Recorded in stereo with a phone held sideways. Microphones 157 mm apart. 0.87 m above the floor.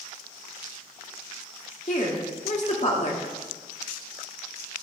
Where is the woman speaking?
50° left (ahead or behind), 2 m.